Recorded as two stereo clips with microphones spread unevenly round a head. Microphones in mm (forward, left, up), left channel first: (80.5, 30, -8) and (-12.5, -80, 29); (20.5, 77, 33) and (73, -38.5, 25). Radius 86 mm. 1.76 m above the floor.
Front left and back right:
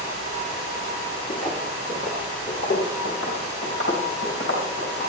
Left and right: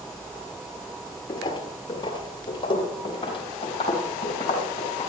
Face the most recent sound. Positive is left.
turn(degrees=65)